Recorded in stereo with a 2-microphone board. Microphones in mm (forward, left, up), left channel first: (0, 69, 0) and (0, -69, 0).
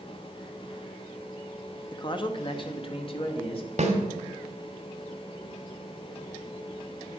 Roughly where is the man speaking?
Left.